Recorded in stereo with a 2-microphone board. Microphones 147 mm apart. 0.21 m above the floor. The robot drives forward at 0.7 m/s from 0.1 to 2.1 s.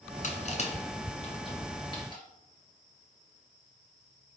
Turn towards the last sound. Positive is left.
turn(degrees=30)  # may be behind; listen again after turning